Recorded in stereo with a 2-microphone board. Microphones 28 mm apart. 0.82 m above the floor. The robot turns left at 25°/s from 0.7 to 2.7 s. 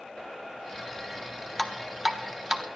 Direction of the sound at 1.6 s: 5° right (ahead or behind).